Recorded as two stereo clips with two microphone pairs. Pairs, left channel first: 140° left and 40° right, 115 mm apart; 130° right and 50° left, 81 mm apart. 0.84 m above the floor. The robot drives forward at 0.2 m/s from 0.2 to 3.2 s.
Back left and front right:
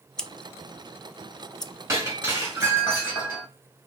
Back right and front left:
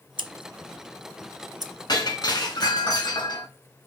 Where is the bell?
No bell in this recording.